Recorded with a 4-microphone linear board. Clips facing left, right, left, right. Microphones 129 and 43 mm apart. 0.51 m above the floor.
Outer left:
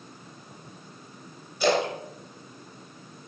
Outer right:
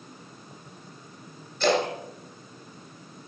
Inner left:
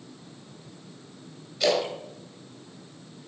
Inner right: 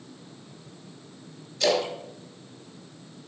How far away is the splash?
About 3 m.